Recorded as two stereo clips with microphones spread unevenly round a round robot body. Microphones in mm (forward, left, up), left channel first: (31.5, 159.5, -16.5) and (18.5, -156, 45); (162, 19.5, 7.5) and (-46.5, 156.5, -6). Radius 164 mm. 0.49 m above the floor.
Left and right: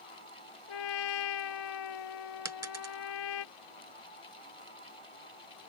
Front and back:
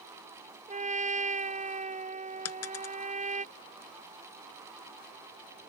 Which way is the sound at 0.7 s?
85° left.